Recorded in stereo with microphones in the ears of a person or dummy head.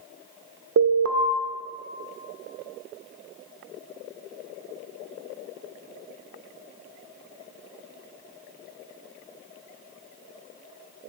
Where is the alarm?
65° right (ahead or behind), 0.6 m.